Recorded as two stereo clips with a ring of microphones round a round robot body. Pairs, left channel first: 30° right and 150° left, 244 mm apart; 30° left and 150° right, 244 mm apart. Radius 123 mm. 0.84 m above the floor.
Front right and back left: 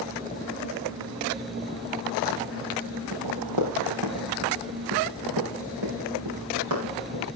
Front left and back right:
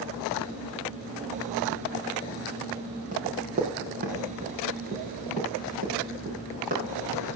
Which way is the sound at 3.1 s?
150° left.